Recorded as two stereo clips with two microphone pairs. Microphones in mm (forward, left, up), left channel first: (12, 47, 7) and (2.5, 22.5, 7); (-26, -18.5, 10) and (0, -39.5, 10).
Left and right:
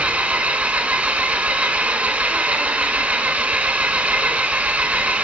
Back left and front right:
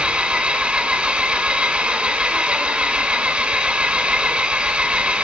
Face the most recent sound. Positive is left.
turn(degrees=-85)